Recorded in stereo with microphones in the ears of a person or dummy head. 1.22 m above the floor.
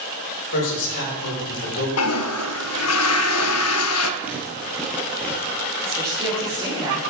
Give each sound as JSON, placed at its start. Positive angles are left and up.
{"t": 0.5, "sound": "a man speaking", "side_deg": 65, "distance_m": 5.0}
{"t": 2.0, "sound": "a toilet flushing", "side_deg": 75, "distance_m": 0.8}
{"t": 4.2, "sound": "footsteps", "side_deg": -10, "distance_m": 1.7}
{"t": 5.8, "sound": "a woman speaking", "side_deg": -20, "distance_m": 4.0}